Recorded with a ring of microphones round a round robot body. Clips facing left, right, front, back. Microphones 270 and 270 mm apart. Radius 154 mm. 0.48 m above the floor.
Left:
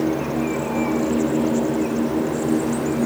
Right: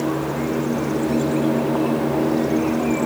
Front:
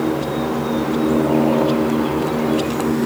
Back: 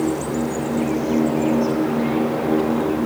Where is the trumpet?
I don't hear a trumpet.